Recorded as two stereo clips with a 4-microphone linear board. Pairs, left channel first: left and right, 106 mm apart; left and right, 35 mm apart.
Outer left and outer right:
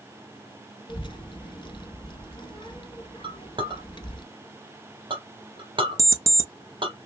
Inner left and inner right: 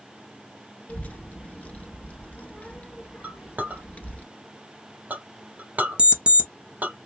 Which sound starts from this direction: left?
A child speaking, at 0.9 s.